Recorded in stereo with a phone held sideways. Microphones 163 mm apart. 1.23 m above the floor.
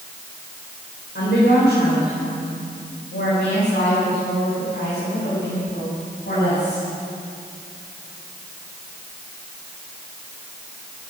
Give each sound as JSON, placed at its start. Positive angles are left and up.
{"t": 1.1, "sound": "a woman speaking", "side_deg": 85, "distance_m": 4.0}